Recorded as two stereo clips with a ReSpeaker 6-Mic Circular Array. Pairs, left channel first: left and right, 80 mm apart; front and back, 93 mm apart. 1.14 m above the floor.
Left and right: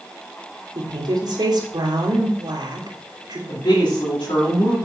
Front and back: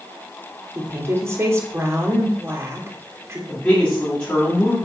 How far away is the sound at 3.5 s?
About 3 m.